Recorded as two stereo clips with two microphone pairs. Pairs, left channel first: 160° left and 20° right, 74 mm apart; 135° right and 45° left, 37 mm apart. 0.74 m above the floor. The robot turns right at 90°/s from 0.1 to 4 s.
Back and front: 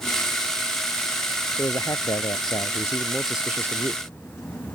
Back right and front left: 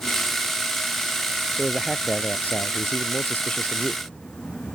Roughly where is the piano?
No piano in this recording.